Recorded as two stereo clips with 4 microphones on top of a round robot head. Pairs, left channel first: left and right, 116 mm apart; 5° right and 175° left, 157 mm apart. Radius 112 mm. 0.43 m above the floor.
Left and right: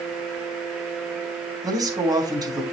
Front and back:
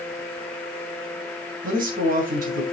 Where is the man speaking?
145° right, 3.5 m.